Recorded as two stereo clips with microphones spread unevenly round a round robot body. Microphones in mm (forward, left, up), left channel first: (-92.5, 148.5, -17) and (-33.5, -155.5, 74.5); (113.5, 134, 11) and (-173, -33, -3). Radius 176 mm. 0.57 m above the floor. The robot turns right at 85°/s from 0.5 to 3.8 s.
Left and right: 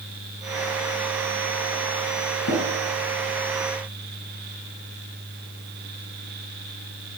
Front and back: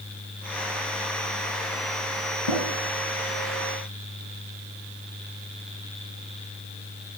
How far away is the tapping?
About 4 m.